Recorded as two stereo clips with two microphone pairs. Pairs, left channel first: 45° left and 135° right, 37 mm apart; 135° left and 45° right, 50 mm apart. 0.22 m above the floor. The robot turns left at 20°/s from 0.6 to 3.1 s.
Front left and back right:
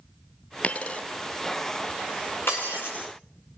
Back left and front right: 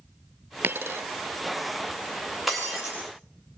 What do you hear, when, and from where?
0.6 s a dropped coin: straight ahead, 0.7 m; by 1.0 s 10° right, 0.7 m
2.5 s breaking glass: 45° left, 7.5 m; by 3.0 s 35° left, 7.5 m